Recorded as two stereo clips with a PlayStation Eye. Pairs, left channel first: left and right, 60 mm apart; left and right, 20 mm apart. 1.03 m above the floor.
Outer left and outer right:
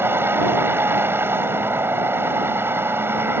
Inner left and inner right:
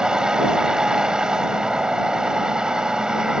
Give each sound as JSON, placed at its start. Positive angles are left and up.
{"t": 0.0, "sound": "a vehicle", "side_deg": -40}